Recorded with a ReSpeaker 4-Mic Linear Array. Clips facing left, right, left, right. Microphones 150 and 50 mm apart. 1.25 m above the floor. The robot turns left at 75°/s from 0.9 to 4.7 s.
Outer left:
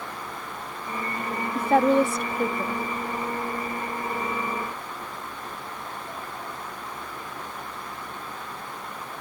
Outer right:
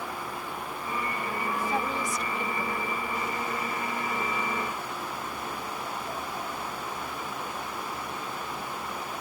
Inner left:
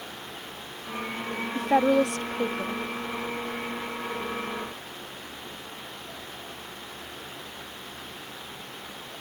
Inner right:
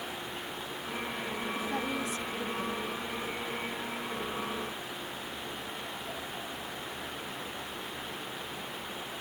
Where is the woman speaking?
115° left; by 2.8 s 20° left.